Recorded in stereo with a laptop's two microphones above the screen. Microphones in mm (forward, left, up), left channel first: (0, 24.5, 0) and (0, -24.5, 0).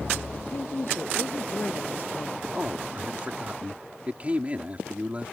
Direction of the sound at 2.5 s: 30° right (ahead or behind).